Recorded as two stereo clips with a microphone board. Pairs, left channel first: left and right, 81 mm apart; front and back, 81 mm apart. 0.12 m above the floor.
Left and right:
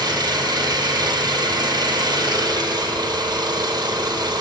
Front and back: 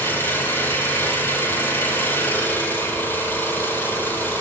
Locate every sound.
0.0 s an engine running: 60° right, 2 m